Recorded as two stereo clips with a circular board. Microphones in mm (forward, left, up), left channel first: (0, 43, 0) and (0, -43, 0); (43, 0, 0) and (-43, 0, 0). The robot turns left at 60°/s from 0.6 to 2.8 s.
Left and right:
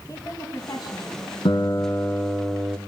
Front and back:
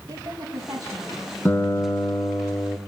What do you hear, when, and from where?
0.1 s a woman speaking: 140° left, 4 m; by 1.4 s 95° left, 4 m
1.4 s a guitar: 65° left, 1.6 m; by 2.8 s 15° right, 1.6 m